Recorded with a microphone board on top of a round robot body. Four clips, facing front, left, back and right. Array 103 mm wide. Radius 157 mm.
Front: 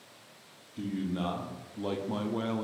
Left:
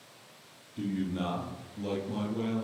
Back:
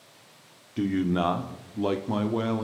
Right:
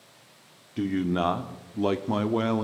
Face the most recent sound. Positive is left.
turn(degrees=-100)